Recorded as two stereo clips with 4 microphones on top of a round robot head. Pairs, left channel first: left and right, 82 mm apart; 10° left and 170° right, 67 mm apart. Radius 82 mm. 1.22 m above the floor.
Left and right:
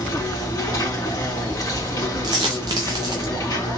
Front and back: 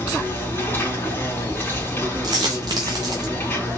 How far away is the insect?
About 2 m.